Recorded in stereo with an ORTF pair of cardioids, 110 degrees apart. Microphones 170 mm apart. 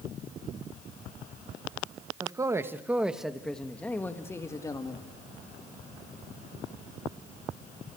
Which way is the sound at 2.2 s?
25° right.